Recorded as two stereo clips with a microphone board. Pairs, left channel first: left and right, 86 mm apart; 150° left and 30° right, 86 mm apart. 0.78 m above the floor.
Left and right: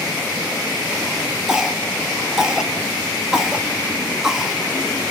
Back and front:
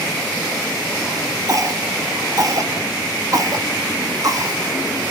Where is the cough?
10° right, 1.4 m.